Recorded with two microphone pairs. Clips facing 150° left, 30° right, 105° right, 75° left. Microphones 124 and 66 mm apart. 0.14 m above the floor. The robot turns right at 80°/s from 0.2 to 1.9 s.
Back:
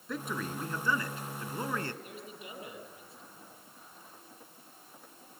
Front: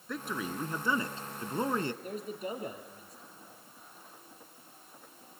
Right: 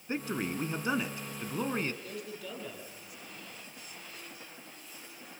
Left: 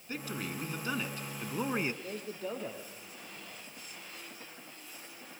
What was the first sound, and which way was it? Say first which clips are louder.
A man speaking: even, right 5 dB; 120° right.